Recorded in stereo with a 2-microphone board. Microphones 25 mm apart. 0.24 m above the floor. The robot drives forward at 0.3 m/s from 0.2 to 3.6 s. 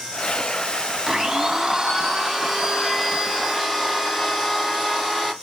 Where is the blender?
25° right (ahead or behind), 0.5 m; by 5.3 s 10° right (ahead or behind), 1.2 m.